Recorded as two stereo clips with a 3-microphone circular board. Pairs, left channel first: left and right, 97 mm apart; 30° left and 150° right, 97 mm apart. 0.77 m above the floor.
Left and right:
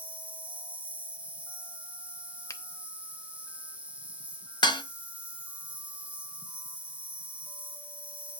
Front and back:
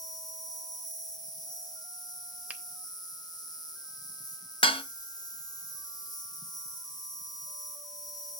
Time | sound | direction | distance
0.0 | an insect | 15° right | 1.6 m
2.5 | a finger snap | 135° left | 0.8 m
4.6 | dishes clattering | 55° left | 0.9 m